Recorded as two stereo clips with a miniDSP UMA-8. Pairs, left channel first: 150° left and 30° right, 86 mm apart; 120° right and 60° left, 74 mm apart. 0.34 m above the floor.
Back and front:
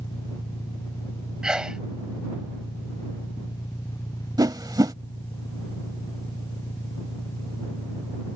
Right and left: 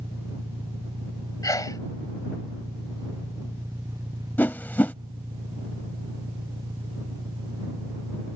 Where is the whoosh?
60° right.